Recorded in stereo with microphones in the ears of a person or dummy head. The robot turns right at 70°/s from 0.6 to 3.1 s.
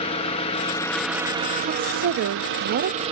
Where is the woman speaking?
150° right, 0.5 m; by 3.1 s 45° right, 0.5 m.